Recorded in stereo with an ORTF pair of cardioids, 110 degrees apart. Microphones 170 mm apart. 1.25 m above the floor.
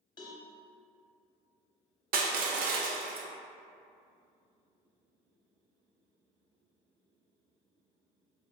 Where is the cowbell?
25° left, 0.9 m.